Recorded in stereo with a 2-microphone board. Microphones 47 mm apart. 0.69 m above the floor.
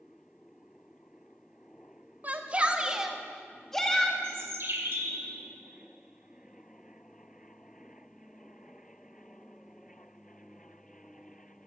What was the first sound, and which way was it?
A shout, 35° right (ahead or behind).